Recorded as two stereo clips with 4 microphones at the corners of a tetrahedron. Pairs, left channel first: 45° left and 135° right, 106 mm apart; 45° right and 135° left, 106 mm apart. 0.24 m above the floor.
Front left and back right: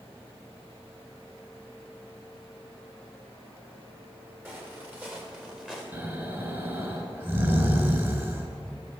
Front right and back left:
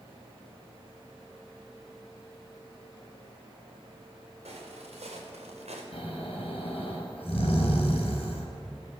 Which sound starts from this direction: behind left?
Footsteps, at 4.5 s.